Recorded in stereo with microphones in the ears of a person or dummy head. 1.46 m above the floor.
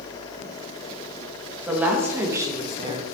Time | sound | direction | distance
1.7 | a woman speaking | 10° right (ahead or behind) | 1.6 m